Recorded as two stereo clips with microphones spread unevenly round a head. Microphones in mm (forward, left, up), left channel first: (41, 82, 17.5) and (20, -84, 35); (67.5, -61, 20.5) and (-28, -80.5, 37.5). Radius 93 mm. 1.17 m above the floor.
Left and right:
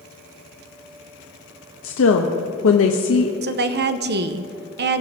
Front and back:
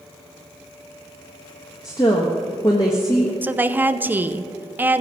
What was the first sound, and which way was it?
A woman speaking, 80° left.